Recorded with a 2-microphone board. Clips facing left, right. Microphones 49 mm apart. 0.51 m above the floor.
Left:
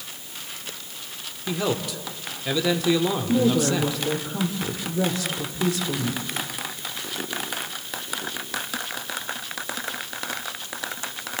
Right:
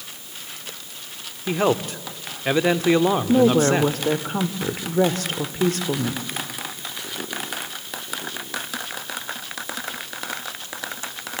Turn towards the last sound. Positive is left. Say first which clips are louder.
# right 4 dB
turn(degrees=-50)  # may be behind; listen again after turning